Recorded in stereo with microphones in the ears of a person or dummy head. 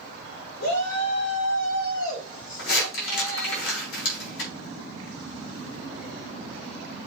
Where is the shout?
70° left (ahead or behind), 3.5 m; by 3.6 s 65° left (ahead or behind), 5 m.